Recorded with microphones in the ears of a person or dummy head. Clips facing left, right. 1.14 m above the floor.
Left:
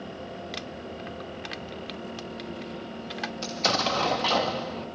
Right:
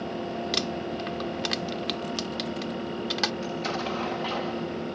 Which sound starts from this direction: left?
An explosion, at 3.4 s.